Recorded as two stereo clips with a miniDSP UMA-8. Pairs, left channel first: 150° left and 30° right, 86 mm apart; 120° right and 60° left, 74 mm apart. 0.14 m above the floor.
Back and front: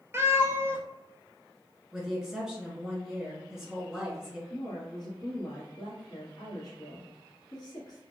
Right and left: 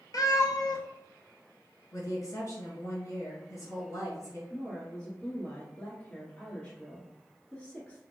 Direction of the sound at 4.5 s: 170° left.